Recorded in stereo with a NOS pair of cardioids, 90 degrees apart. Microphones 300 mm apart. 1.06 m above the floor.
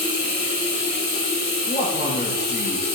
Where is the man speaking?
40° left, 4 m.